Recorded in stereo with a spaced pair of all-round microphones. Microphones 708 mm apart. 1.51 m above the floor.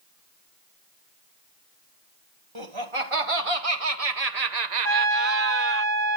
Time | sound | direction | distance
2.5 | laughter | 40° right (ahead or behind) | 2 m
4.8 | a trumpet | 30° right (ahead or behind) | 2.5 m